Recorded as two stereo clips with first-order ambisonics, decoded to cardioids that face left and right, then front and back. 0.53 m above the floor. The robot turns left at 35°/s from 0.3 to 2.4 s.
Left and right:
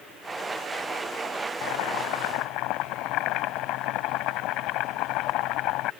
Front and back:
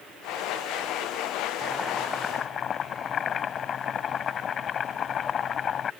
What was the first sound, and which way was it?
Boiling, 90° left.